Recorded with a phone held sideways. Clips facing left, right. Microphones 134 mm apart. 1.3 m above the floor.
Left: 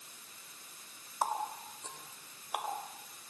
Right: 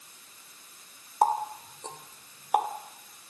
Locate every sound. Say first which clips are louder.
1.2 s a running tap: right 9 dB; 80° right, 3 m